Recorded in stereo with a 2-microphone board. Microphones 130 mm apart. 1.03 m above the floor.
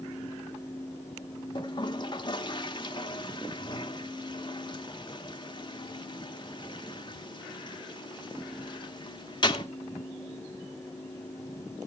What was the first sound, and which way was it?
A toilet flushing, 35° left (ahead or behind).